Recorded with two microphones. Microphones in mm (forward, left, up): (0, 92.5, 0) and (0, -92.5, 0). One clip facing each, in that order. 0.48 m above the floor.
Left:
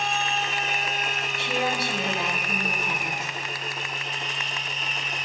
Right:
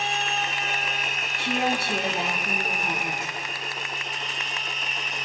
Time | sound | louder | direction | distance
1.4 | a woman speaking | right 2 dB | 50° right (ahead or behind) | 4.5 m